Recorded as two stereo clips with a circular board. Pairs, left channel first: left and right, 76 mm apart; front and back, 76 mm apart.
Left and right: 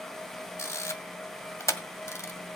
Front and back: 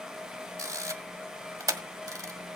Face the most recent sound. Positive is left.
turn(degrees=140)